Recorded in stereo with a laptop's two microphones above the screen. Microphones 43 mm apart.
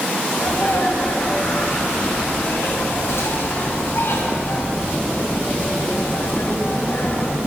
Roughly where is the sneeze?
Left.